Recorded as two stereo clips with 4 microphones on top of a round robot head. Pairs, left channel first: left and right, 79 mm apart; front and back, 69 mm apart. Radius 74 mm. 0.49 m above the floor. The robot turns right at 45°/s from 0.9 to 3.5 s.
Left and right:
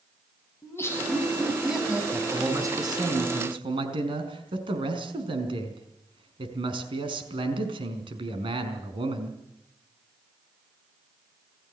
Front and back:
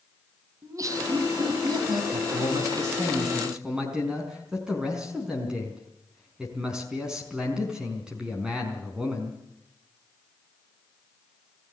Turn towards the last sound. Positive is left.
turn(degrees=-100)